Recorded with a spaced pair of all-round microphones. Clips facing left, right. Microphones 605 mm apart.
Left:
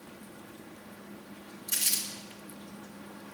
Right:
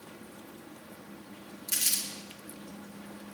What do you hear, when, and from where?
1.7 s crumpling: 30° right (ahead or behind), 1.6 m